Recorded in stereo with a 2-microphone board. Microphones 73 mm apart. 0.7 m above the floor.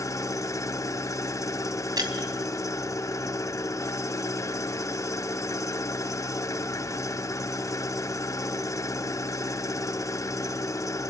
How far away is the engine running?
About 0.8 m.